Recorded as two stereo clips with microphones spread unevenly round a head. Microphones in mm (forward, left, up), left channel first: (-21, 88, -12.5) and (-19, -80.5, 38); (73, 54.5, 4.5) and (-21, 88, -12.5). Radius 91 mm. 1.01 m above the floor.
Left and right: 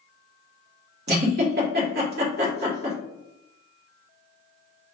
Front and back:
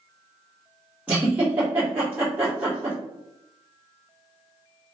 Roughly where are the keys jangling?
I don't hear keys jangling.